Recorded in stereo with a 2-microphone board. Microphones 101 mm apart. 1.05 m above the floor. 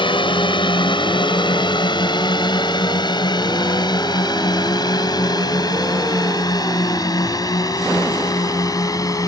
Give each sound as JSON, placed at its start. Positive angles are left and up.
{"t": 0.0, "sound": "a drone", "side_deg": 55}